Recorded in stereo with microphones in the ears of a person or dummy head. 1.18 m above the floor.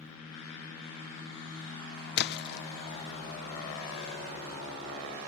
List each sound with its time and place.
2.2 s a splash: 50° left (ahead or behind)